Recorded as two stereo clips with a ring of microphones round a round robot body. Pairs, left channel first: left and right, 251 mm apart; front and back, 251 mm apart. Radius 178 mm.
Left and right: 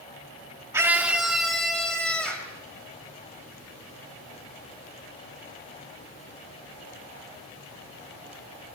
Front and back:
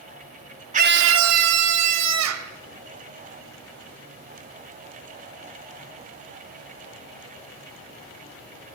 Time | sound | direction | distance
0.7 | a scream | 160° right | 0.7 m